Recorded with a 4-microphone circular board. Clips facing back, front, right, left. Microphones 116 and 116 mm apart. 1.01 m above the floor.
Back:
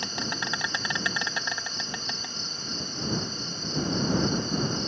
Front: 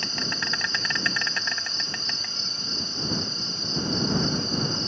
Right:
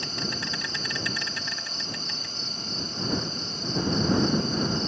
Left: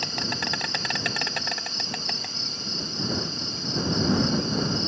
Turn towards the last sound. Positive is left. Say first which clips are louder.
# even, left 2 dB
turn(degrees=105)